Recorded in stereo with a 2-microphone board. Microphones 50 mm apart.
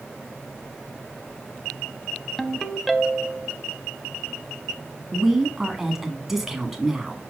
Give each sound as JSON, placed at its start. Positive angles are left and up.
{"t": 2.4, "sound": "a ringtone", "side_deg": 0, "distance_m": 0.6}
{"t": 5.1, "sound": "a woman speaking", "side_deg": -5, "distance_m": 1.7}